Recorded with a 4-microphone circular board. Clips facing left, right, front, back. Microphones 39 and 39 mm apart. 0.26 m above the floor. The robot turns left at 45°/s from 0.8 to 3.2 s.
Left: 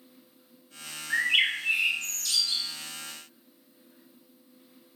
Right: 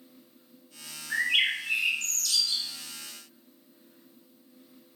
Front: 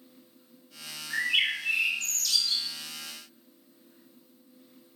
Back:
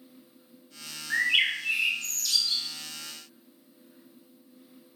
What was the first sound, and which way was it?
A bird, 155° left.